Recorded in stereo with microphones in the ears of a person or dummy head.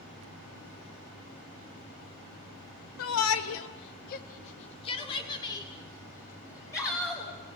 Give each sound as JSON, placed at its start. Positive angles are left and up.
{"t": 3.0, "sound": "a shout", "side_deg": 70, "distance_m": 1.5}